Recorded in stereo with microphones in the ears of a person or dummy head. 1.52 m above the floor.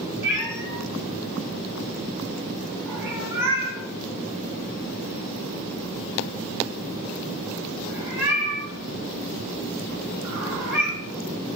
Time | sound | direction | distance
0.2 | a cat meowing | 10° right (ahead or behind) | 0.8 m